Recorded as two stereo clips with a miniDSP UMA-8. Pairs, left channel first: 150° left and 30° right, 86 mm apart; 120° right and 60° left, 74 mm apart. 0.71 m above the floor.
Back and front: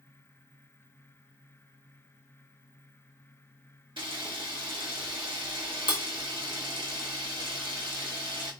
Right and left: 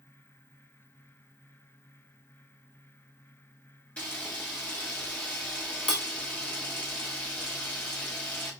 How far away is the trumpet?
I don't hear a trumpet.